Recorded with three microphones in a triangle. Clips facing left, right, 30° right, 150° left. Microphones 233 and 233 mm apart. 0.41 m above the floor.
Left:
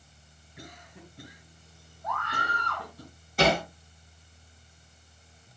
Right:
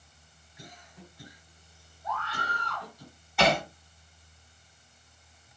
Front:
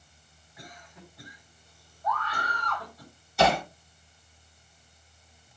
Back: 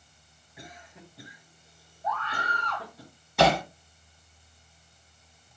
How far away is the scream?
About 4 m.